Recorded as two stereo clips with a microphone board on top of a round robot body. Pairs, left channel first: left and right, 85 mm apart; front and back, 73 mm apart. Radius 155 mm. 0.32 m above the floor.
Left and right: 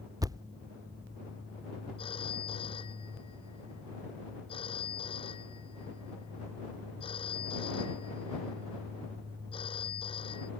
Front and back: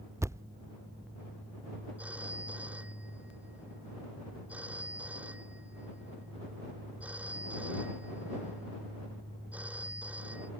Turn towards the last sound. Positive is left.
turn(degrees=110)